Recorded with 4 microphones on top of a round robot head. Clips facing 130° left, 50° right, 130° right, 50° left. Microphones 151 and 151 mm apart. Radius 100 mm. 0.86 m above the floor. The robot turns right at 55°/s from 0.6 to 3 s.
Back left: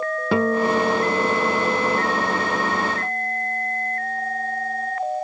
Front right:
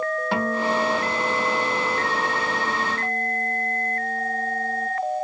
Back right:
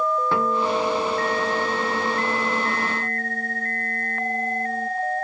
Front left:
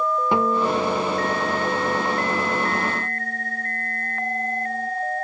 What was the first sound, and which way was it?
A guitar, 125° left.